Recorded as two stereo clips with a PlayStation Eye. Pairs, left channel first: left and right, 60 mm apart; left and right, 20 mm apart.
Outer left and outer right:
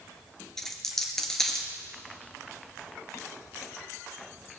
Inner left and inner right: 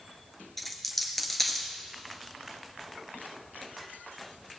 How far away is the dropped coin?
About 1.0 m.